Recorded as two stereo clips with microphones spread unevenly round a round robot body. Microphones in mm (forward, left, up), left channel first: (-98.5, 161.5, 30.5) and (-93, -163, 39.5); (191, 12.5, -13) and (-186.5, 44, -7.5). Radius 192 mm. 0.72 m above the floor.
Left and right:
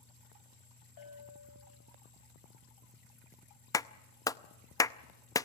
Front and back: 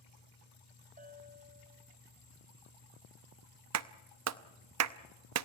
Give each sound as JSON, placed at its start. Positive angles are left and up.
{"t": 1.0, "sound": "a bell", "azimuth_deg": 105, "distance_m": 4.5}
{"t": 3.7, "sound": "a clap", "azimuth_deg": 165, "distance_m": 0.7}